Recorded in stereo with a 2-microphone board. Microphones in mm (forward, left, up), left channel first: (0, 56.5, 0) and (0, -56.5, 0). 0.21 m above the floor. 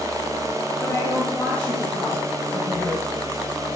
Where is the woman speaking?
15° left (ahead or behind), 3.5 m; by 3.1 s 15° right (ahead or behind), 3 m.